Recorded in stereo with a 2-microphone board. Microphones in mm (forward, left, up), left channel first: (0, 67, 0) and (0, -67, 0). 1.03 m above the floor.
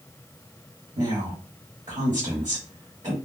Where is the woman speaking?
60° right (ahead or behind), 1.6 m.